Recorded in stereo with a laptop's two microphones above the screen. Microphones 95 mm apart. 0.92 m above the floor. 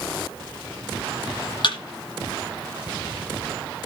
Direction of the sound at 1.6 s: 55° left (ahead or behind).